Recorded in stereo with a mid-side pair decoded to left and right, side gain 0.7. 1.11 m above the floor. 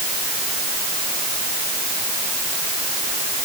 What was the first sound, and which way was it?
Only background noise.